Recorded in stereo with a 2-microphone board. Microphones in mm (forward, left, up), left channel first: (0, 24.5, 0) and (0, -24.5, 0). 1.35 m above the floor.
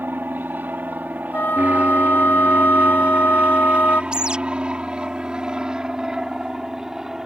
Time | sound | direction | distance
0.0 | an aircraft | 40° right (ahead or behind) | ?
1.3 | a flute | 45° left (ahead or behind) | ?
4.1 | a bird | 20° right (ahead or behind) | ?